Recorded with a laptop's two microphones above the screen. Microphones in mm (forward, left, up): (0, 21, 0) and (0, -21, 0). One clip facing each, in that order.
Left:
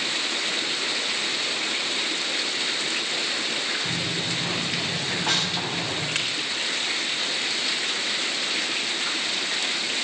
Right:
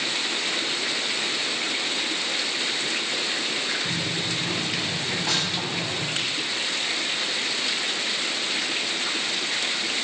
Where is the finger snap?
85° left, 4 m.